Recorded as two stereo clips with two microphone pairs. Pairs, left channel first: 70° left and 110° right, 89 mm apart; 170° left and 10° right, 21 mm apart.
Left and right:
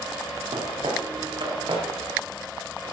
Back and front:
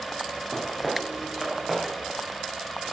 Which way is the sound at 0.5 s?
90° right.